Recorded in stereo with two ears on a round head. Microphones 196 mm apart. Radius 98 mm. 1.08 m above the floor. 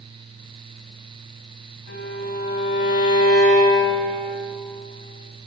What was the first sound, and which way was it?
A violin, 50° left (ahead or behind).